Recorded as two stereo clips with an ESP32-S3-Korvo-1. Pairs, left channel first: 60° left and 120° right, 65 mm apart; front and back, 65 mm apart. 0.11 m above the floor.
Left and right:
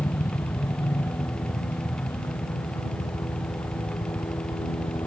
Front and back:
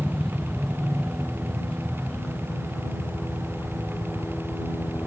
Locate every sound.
0.0 s a helicopter: 80° left; by 5.1 s 60° left